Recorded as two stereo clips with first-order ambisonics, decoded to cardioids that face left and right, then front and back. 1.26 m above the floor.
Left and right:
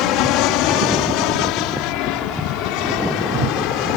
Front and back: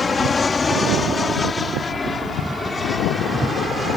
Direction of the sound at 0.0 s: 70° left.